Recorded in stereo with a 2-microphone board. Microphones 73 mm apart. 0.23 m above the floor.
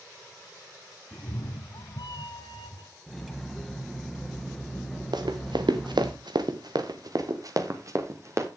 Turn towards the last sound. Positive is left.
turn(degrees=-40)  # may be behind; listen again after turning